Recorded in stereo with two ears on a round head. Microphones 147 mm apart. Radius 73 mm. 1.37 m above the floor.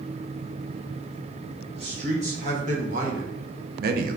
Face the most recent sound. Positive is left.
turn(degrees=-50)  # may be behind; listen again after turning